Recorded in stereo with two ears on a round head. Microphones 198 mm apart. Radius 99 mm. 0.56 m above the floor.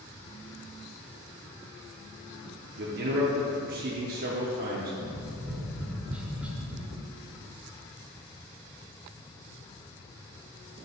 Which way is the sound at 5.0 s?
5° right (ahead or behind).